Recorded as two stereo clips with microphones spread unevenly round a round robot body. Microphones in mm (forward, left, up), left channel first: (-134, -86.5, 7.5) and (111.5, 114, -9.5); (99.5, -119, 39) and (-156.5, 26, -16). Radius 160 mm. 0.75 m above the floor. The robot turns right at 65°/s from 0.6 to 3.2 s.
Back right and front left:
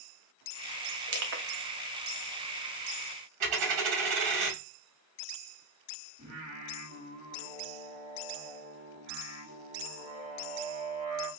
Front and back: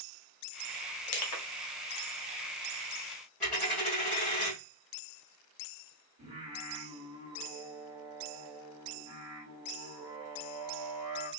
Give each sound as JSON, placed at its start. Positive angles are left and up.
{"t": 1.1, "sound": "crushing", "azimuth_deg": -15, "distance_m": 0.6}
{"t": 3.4, "sound": "a dropped coin", "azimuth_deg": 50, "distance_m": 1.8}
{"t": 6.2, "sound": "singing", "azimuth_deg": 105, "distance_m": 1.7}